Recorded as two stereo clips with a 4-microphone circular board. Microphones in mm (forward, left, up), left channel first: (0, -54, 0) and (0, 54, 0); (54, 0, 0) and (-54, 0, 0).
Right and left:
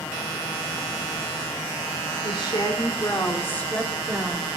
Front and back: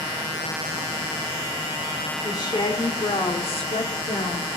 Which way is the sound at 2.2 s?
50° right.